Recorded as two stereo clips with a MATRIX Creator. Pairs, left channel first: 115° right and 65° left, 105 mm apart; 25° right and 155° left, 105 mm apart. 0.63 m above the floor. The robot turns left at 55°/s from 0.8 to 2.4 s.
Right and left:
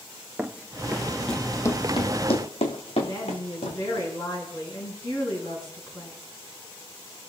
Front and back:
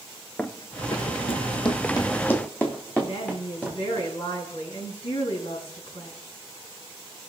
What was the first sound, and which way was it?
Running footsteps, 30° left.